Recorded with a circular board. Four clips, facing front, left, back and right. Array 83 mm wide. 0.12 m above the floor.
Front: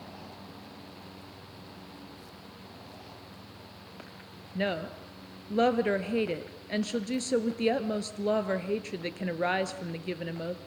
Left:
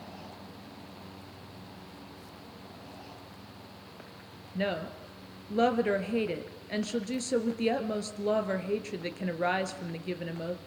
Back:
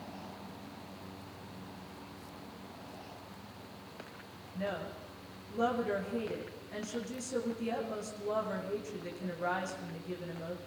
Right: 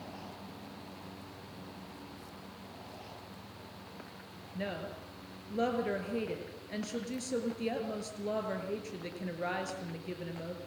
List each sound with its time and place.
4.5 s a woman speaking: 30° left, 2 m